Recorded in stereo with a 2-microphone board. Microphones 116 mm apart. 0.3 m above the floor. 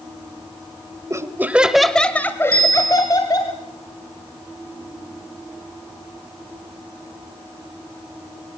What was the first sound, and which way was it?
Laughter, 25° right (ahead or behind).